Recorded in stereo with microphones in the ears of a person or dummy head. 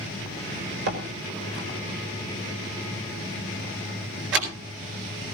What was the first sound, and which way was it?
A door slam, 75° right (ahead or behind).